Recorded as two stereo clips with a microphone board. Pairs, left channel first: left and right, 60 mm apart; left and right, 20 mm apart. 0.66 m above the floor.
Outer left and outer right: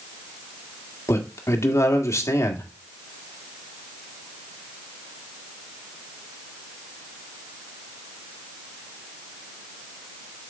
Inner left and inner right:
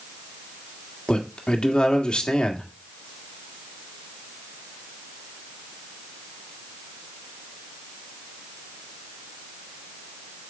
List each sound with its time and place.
1.1 s a man speaking: 55° left (ahead or behind), 1.8 m